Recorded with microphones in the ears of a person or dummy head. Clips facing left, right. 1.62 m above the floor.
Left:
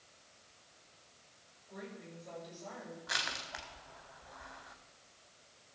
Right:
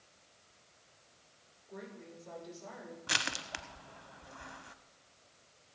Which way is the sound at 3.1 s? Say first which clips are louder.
Right 3 dB; 45° right (ahead or behind).